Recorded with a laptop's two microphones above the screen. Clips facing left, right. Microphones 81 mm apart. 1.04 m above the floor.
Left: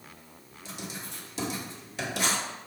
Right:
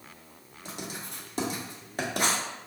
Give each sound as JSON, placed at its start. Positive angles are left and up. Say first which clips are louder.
{"t": 0.7, "sound": "writing", "louder": "right 1 dB", "side_deg": -50, "distance_m": 1.3}